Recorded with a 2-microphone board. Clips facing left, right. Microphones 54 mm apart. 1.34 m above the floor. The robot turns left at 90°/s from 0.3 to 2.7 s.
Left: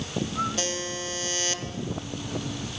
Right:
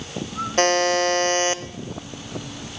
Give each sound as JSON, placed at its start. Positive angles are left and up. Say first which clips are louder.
{"t": 0.6, "sound": "a buzzer", "louder": "right 13 dB", "azimuth_deg": -55, "distance_m": 0.5}